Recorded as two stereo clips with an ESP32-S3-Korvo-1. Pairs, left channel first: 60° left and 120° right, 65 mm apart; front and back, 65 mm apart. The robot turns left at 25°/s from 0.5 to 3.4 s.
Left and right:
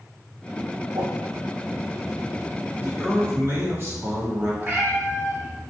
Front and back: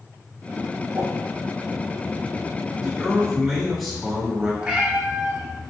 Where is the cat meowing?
125° right, 0.7 m.